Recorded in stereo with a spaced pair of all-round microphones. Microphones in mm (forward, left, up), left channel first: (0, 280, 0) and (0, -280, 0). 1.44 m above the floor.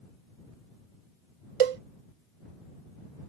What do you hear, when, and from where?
1.6 s a cowbell: 70° right (ahead or behind)